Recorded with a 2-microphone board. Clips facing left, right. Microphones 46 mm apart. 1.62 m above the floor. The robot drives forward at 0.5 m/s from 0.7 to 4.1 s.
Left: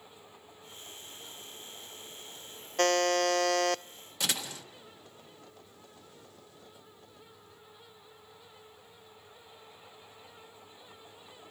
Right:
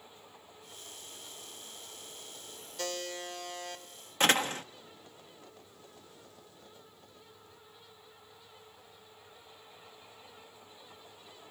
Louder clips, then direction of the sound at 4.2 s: Right 8 dB; 40° right (ahead or behind).